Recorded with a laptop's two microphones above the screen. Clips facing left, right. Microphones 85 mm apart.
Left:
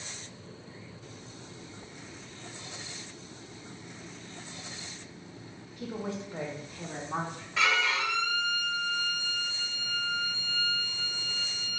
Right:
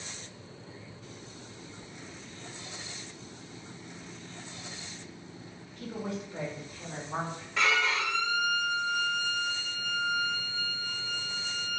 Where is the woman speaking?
15° left (ahead or behind), 1.3 m; by 7.5 s 55° left (ahead or behind), 2 m.